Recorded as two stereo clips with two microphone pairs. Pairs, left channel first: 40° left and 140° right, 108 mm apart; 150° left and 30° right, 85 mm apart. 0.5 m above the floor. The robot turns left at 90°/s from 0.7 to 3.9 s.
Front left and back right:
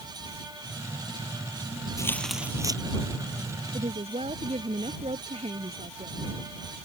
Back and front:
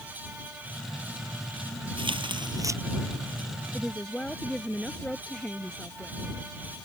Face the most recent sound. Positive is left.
turn(degrees=-130)